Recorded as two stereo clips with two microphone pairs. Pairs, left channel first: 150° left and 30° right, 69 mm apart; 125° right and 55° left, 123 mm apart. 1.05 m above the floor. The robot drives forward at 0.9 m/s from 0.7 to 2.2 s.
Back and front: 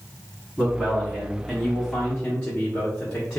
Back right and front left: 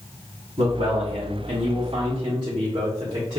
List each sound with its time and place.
0.6 s a man speaking: 40° left, 1.6 m; by 3.4 s 95° left, 1.1 m